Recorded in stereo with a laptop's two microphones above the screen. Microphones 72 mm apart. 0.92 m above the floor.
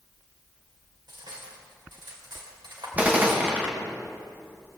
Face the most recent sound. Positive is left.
turn(degrees=-20)  # may be behind; listen again after turning